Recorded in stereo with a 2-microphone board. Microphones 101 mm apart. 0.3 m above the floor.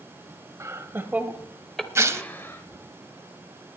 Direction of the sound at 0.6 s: 30° right (ahead or behind).